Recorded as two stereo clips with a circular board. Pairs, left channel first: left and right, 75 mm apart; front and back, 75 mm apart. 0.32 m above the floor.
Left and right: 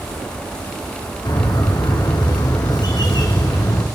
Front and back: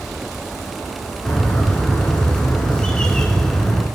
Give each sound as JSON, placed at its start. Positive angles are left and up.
{"t": 1.2, "sound": "a bird", "azimuth_deg": 80, "distance_m": 1.0}